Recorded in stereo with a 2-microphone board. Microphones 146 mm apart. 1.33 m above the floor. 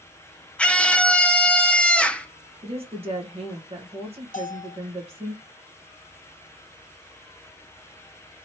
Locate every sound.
0.6 s a scream: 10° left (ahead or behind), 0.7 m
2.6 s a woman speaking: 45° right (ahead or behind), 1.4 m
4.3 s a bell: 65° left (ahead or behind), 0.8 m